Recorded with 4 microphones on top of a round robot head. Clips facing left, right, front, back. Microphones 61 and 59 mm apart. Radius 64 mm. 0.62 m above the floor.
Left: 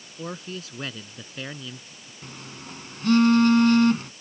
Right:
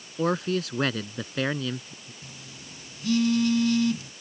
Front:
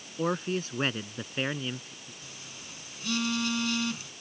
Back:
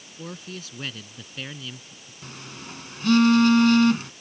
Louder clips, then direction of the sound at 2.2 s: Left 5 dB, back 7 dB; 145° left.